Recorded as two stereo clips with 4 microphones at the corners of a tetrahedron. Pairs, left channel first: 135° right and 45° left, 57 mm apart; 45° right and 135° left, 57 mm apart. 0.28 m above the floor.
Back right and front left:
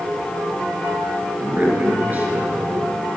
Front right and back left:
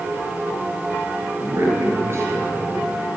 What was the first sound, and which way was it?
A man speaking, 100° left.